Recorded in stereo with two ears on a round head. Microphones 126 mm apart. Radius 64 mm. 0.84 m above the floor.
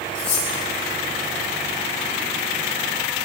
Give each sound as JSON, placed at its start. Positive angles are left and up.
{"t": 0.1, "sound": "cutlery clinking", "side_deg": 55, "distance_m": 6.0}